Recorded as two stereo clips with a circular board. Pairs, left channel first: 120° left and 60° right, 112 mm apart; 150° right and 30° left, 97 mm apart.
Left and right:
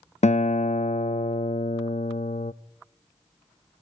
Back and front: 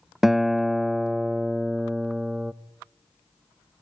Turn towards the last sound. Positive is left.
turn(degrees=115)